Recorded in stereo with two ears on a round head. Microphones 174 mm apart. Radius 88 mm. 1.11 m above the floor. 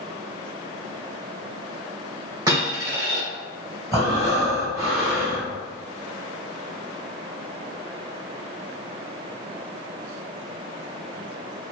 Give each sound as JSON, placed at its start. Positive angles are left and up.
{"t": 2.5, "sound": "a dropped coin", "side_deg": -20, "distance_m": 1.5}
{"t": 3.9, "sound": "breathing", "side_deg": -15, "distance_m": 1.5}